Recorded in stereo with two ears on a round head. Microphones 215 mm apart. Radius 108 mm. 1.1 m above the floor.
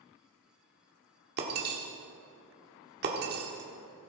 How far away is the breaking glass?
About 1.5 m.